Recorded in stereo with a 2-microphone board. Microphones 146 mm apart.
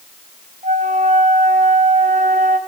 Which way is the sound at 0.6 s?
65° right (ahead or behind).